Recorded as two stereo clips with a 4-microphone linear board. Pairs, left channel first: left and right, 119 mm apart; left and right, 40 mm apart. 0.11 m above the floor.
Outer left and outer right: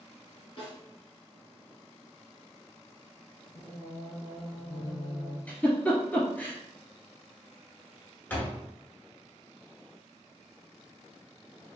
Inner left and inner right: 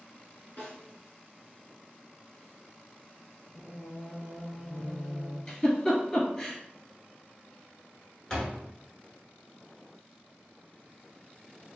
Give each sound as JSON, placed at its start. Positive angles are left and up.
{"t": 0.6, "sound": "a snare drum", "side_deg": 50, "distance_m": 1.6}
{"t": 3.5, "sound": "singing", "side_deg": 50, "distance_m": 0.6}
{"t": 5.5, "sound": "a giggle", "side_deg": 15, "distance_m": 0.9}
{"t": 8.3, "sound": "a door slam", "side_deg": 15, "distance_m": 0.8}